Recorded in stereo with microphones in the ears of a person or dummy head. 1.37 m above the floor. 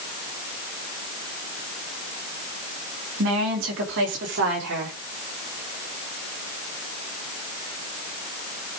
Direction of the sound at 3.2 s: 65° right (ahead or behind).